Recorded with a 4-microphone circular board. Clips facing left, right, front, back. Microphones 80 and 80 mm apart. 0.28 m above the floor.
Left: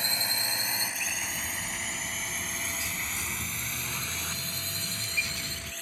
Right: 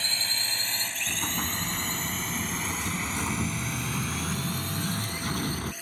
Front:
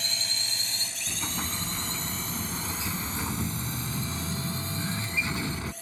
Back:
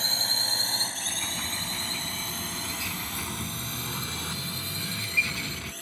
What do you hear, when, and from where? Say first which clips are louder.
0.0 s a drone: left 1 dB, back 4 dB; 155° left; by 5.8 s 170° right
1.1 s an explosion: right 4 dB, front 1 dB; 65° right